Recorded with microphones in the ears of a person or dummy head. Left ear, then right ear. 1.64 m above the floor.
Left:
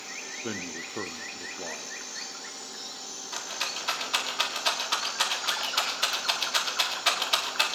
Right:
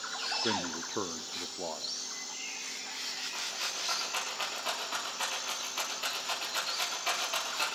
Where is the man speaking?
15° right (ahead or behind), 0.6 m.